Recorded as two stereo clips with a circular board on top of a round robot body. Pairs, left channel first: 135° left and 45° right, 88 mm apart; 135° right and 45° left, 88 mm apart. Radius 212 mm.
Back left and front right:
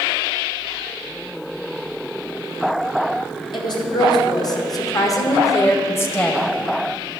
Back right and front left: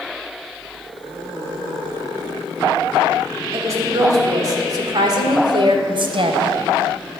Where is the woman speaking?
100° left, 3 m; by 6.5 s 60° left, 1.6 m.